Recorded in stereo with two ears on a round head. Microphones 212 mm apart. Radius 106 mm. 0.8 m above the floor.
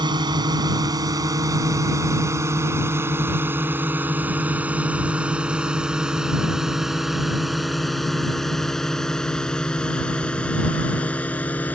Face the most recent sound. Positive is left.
turn(degrees=5)  # may be behind; listen again after turning